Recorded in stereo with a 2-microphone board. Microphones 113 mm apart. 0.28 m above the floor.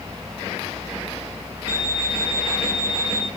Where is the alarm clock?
35° left (ahead or behind), 2.5 m.